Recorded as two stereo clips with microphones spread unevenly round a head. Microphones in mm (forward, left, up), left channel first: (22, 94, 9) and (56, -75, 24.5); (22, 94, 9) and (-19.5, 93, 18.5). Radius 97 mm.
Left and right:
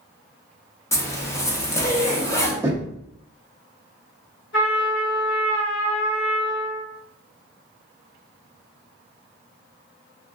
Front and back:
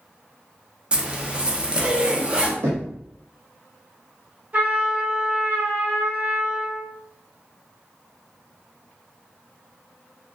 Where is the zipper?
120° left, 0.6 m.